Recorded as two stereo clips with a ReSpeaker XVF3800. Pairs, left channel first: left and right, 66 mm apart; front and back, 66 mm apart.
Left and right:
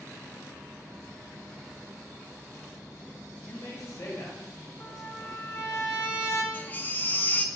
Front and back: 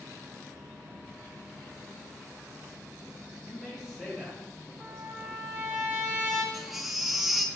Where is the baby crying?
95° left, 0.5 m.